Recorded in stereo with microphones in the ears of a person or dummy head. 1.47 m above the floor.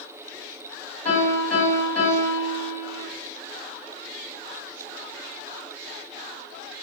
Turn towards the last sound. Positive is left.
turn(degrees=50)  # may be behind; listen again after turning